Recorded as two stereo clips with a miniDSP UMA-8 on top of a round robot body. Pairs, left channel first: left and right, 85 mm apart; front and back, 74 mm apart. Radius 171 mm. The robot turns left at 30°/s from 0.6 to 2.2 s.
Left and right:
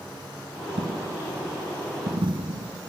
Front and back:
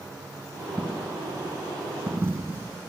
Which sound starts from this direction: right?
A dropped coin, at 0.8 s.